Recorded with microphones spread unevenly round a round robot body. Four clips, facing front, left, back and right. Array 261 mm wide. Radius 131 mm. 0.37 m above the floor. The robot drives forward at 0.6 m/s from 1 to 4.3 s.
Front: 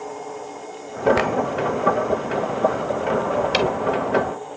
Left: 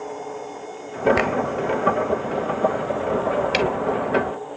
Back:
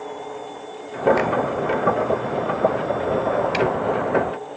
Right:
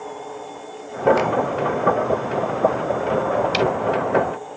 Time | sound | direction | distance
1.2 | a finger snap | 40° left | ?
3.5 | ticking | 25° left | ?